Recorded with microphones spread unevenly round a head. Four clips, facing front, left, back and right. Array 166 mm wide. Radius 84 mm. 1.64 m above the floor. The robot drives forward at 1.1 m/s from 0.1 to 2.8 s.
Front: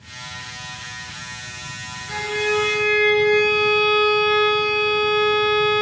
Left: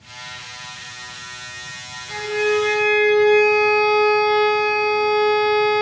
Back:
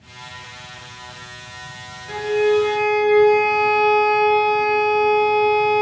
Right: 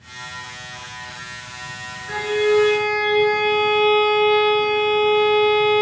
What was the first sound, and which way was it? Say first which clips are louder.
A violin: right 2 dB, back 6 dB; 145° right.